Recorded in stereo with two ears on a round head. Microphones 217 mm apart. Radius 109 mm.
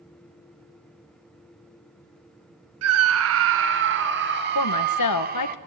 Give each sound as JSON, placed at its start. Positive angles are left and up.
{"t": 2.8, "sound": "a scream", "side_deg": -70, "distance_m": 1.5}
{"t": 4.5, "sound": "a woman speaking", "side_deg": 80, "distance_m": 1.9}